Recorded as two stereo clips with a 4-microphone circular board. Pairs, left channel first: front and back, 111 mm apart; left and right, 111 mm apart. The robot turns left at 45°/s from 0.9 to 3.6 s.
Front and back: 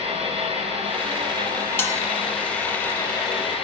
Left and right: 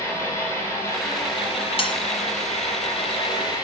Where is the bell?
65° left, 1.7 m; by 1.9 s 60° left, 1.7 m.